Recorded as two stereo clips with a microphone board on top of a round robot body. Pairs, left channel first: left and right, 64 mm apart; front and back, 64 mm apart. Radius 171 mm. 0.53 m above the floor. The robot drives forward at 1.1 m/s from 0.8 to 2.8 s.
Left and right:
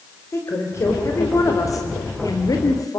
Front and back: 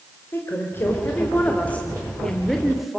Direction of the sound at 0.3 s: 55° left.